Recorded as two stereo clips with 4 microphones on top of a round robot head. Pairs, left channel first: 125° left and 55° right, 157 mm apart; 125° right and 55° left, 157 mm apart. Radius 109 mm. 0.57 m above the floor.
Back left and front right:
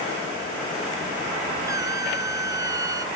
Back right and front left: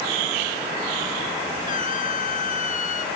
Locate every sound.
1.7 s a squeak: 115° right, 1.0 m